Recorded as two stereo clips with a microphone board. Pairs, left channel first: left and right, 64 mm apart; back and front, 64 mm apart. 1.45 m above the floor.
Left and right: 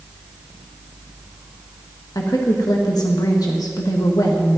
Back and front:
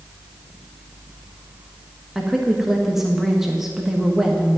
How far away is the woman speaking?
About 1.4 m.